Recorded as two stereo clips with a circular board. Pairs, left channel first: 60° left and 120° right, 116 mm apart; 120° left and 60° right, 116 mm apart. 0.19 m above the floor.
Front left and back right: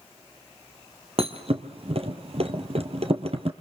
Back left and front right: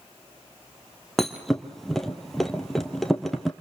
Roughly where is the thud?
Behind right.